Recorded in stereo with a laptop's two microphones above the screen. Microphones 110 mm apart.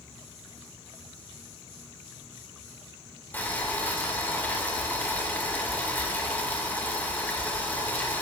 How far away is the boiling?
About 2 m.